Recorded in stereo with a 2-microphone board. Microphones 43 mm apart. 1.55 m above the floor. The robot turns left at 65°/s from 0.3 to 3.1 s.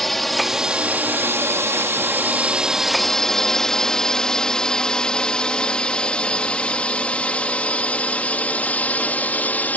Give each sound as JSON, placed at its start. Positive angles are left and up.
{"t": 0.0, "sound": "a drone", "side_deg": 5}